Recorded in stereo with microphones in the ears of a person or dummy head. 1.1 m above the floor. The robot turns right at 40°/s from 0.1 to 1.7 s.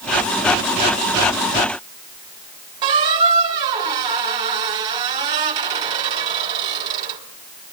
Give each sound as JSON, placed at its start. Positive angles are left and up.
{"t": 2.8, "sound": "a squeak", "side_deg": -30, "distance_m": 3.0}